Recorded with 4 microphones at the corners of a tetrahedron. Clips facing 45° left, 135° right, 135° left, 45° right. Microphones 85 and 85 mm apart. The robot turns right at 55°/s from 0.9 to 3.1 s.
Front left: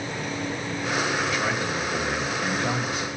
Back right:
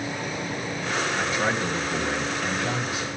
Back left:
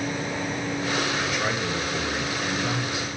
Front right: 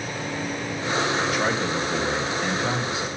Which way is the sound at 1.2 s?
90° right.